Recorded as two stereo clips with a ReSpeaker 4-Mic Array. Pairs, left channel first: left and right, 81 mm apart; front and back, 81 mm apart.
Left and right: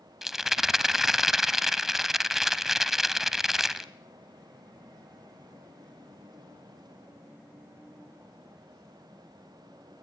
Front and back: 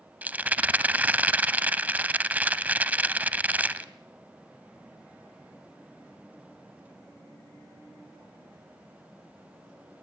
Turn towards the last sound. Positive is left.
turn(degrees=-165)